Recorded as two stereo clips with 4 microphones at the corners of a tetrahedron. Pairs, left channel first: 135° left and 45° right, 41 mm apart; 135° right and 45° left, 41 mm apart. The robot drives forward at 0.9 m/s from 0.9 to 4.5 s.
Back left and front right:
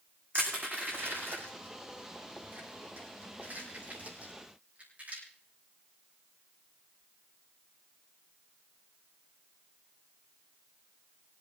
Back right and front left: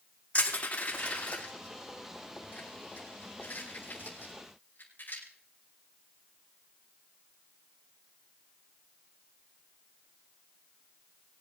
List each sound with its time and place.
0.3 s crushing: 75° right, 8 m; by 5.2 s 95° right, 7.5 m